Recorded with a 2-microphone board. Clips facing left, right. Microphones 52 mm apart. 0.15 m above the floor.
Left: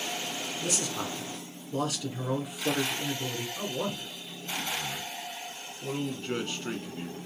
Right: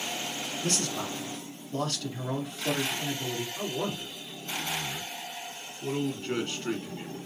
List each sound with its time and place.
0.6 s a man speaking: 10° left (ahead or behind), 1.3 m
3.6 s a man speaking: 5° left (ahead or behind), 1.9 m